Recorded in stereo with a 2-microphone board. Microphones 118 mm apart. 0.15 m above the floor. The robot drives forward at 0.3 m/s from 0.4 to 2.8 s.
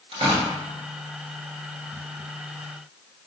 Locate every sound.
0.1 s tearing paper: 60° right (ahead or behind), 1.3 m